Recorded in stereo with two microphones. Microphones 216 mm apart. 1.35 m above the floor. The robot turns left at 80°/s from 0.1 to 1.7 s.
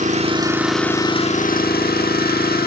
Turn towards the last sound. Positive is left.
turn(degrees=105)